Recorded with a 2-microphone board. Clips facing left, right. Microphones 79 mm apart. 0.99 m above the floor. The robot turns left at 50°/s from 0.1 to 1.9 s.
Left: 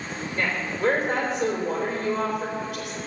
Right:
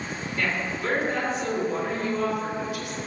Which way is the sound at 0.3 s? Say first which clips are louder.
Left 1 dB; 170° left.